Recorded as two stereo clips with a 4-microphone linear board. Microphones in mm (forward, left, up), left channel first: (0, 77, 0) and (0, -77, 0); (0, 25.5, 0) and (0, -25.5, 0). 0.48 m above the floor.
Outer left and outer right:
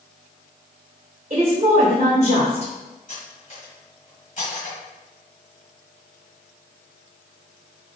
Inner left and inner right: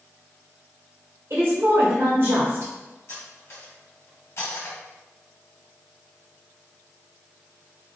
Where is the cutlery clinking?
55° left (ahead or behind), 1.6 m.